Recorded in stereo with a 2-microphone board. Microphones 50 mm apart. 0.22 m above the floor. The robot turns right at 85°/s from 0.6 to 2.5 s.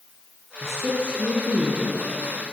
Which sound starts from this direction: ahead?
A man speaking, at 0.6 s.